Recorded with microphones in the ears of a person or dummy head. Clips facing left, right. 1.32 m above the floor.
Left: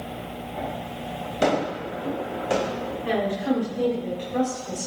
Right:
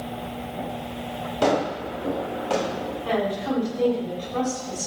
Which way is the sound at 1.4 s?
30° left (ahead or behind).